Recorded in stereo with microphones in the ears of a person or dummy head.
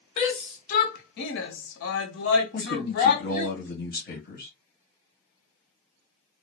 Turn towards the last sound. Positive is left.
turn(degrees=60)  # may be behind; listen again after turning